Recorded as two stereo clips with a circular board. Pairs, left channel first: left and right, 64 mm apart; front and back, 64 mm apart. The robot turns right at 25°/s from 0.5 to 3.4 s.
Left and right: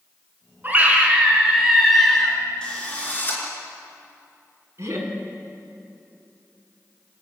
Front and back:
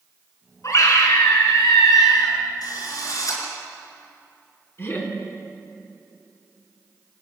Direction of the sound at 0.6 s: 35° right.